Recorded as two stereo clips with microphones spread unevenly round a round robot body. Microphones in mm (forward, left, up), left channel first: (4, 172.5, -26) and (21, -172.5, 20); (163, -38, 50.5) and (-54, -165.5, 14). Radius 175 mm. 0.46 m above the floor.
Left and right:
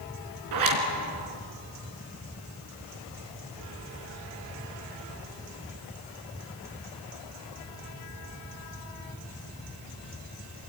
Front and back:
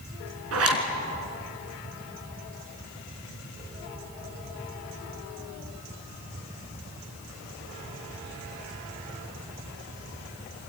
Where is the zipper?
125° right, 3.5 m.